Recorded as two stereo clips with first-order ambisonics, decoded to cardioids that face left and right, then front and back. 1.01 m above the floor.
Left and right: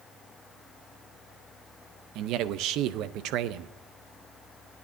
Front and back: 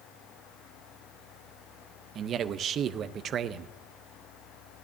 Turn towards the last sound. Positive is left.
turn(degrees=-125)